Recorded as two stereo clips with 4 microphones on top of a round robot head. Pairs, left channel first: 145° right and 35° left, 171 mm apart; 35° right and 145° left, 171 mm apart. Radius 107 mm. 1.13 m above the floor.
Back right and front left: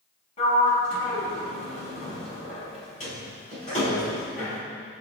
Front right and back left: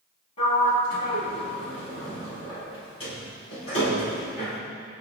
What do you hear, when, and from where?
0.4 s a sliding door: 95° right, 5 m